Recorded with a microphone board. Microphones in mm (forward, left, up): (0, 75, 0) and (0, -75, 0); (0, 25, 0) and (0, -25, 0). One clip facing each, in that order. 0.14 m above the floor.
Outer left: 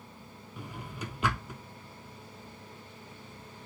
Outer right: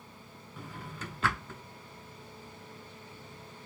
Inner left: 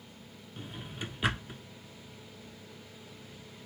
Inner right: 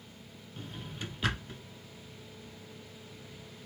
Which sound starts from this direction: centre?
A drawer, at 0.6 s.